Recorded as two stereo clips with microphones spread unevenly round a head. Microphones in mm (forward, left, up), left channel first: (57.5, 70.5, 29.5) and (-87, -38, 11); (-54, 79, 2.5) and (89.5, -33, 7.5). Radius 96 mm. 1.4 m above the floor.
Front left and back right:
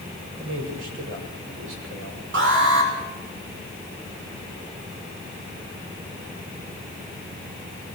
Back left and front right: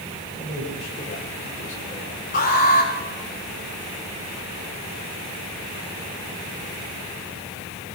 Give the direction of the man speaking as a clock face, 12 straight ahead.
5 o'clock.